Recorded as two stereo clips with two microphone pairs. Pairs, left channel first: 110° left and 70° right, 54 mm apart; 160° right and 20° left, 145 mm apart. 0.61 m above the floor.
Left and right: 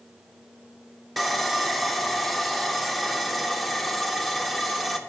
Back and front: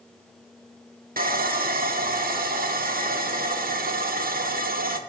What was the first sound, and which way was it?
Sawing, 20° left.